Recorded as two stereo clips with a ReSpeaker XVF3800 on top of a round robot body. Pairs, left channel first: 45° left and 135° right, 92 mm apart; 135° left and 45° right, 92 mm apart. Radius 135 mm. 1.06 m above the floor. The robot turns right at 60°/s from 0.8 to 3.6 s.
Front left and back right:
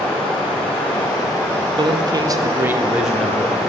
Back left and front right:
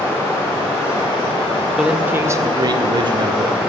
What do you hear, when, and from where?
0.0 s running water: 70° left, 1.8 m; by 3.7 s 125° right, 1.8 m
1.8 s a man speaking: 130° right, 0.6 m; by 3.6 s 20° right, 0.6 m